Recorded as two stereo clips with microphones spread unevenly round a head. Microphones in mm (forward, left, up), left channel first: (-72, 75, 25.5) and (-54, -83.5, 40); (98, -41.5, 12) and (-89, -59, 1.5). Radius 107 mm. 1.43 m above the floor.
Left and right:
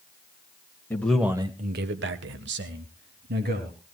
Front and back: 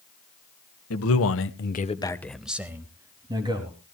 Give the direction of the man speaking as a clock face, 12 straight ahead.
11 o'clock.